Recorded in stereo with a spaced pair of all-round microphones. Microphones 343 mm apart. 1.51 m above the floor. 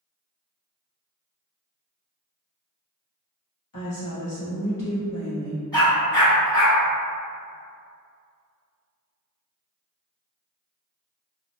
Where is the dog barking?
10° left (ahead or behind), 1.2 m.